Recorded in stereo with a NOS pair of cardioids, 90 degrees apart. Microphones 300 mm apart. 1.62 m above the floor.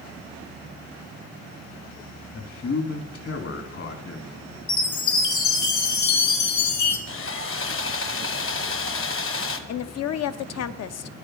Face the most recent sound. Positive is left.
turn(degrees=60)